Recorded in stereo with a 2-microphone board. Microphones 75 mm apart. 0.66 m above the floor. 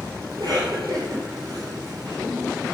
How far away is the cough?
About 2 m.